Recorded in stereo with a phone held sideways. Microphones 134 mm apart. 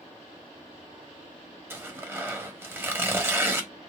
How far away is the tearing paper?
About 1.0 m.